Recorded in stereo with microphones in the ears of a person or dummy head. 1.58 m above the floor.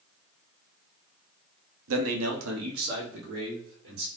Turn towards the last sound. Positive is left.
turn(degrees=-65)  # may be behind; listen again after turning